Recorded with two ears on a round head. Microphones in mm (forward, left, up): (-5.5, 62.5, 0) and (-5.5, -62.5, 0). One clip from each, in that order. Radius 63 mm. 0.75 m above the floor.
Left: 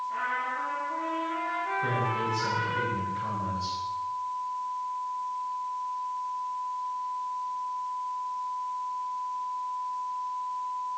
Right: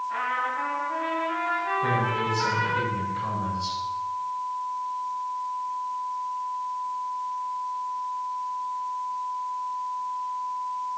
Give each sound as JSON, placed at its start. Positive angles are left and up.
{"t": 0.1, "sound": "a trumpet", "side_deg": -50, "distance_m": 5.0}
{"t": 1.8, "sound": "a man speaking", "side_deg": -10, "distance_m": 7.5}